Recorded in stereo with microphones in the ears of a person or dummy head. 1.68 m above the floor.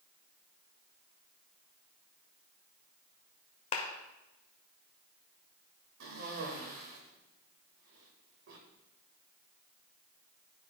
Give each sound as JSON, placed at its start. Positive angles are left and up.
{"t": 3.7, "sound": "a clap", "side_deg": 40, "distance_m": 1.2}
{"t": 6.0, "sound": "a cough", "side_deg": -65, "distance_m": 1.6}